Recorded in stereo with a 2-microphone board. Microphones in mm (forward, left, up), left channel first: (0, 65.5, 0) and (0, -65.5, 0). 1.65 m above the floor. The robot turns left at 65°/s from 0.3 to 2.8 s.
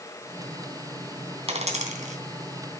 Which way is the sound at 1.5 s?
50° right (ahead or behind).